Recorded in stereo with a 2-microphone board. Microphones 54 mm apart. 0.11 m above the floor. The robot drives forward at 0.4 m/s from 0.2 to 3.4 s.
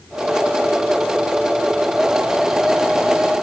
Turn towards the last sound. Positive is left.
No sound to turn to.